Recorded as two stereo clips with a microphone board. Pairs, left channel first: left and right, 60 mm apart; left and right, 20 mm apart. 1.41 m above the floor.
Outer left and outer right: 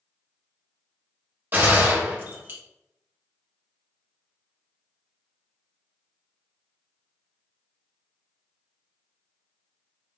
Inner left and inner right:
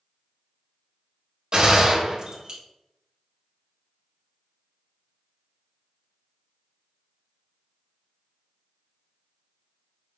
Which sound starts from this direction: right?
A gunshot, at 1.5 s.